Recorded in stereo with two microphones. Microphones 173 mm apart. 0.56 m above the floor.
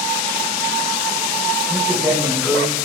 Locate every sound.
1.7 s a man speaking: 10° right (ahead or behind), 3.5 m; by 2.7 s 5° left (ahead or behind), 3 m